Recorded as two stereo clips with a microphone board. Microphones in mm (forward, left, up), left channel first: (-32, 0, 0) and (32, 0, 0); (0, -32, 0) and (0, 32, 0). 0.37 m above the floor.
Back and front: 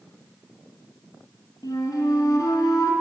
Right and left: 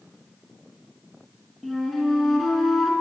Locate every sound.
1.6 s a flute: straight behind, 4 m